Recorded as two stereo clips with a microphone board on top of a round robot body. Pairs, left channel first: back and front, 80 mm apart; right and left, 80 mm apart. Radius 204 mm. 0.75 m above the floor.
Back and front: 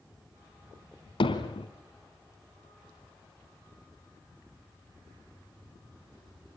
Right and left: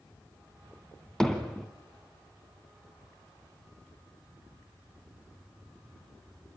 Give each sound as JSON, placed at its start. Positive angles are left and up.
{"t": 1.2, "sound": "hammering", "azimuth_deg": -175, "distance_m": 2.0}